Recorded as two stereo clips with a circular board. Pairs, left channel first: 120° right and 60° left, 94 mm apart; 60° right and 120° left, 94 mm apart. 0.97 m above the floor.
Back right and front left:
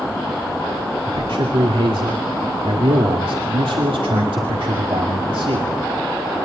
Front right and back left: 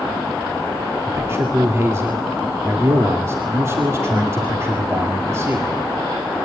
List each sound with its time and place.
1.1 s a man speaking: 65° left, 2.5 m